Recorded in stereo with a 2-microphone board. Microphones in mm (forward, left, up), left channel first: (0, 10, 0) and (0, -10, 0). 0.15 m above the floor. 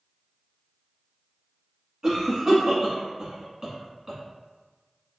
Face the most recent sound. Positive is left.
turn(degrees=-25)  # may be behind; listen again after turning